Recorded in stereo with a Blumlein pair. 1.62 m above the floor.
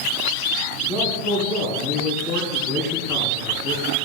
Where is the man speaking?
35° left, 4 m.